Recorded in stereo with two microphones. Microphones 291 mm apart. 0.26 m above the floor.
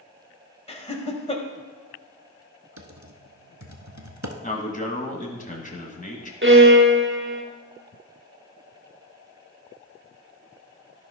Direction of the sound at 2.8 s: 70° right (ahead or behind).